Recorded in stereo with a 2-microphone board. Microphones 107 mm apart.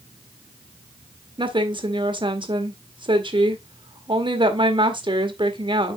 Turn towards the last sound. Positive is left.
turn(degrees=-50)  # may be behind; listen again after turning